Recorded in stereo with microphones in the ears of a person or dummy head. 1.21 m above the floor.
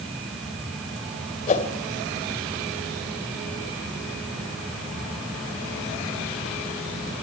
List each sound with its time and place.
1.5 s a whoosh: 40° left (ahead or behind), 1.9 m